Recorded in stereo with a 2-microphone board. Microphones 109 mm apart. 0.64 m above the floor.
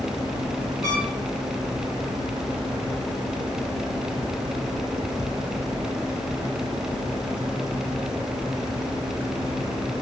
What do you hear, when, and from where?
0.8 s a trumpet: 30° right (ahead or behind), 2 m